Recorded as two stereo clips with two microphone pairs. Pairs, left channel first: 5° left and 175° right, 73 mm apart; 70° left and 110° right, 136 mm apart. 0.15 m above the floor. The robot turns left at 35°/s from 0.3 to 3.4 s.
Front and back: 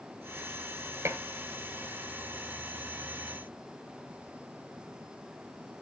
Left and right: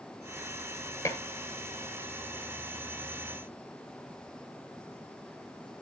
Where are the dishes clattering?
135° left, 1.7 m; by 1.2 s 130° left, 1.7 m.